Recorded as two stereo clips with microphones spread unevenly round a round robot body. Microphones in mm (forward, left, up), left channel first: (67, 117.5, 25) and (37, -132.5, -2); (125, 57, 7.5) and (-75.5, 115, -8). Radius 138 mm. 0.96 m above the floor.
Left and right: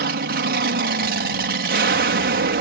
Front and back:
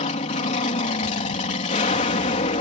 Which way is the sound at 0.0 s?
70° right.